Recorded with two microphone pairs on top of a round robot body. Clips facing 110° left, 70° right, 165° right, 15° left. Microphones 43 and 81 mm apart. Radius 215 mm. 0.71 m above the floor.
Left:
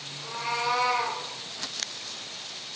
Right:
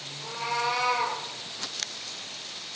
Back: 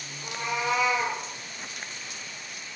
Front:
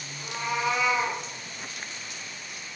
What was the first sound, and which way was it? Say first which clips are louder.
A cat meowing: right 1 dB, front 1 dB; 70° left.